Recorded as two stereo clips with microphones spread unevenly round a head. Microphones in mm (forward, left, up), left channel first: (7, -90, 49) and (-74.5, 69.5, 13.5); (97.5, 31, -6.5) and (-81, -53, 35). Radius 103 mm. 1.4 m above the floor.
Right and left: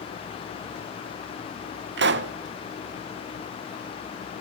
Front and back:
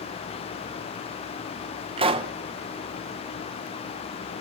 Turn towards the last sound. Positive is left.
turn(degrees=140)